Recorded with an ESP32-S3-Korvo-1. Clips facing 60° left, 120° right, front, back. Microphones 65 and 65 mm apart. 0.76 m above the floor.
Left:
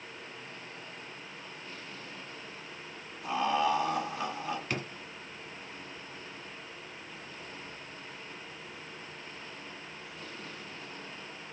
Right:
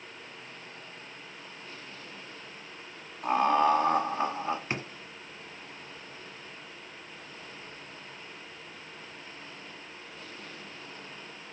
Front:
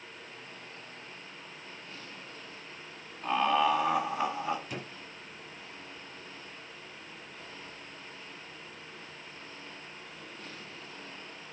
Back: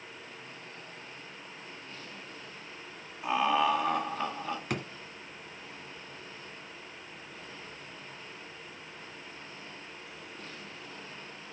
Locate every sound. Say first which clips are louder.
3.2 s laughter: right 5 dB, even; 100° right, 1.7 m; by 4.6 s 65° right, 1.6 m
4.7 s a drawer: right 1 dB, back 5 dB; 175° left, 1.5 m